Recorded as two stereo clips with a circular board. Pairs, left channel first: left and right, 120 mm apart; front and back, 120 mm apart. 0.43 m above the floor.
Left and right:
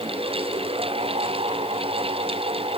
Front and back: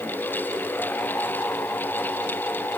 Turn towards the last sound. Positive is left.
No sound to turn to.